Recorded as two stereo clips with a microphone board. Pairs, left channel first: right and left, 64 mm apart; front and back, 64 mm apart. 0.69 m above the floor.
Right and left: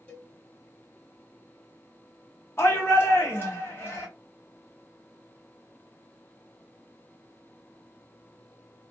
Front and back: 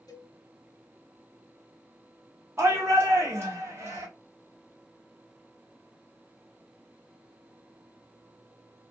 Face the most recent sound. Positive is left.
turn(degrees=-135)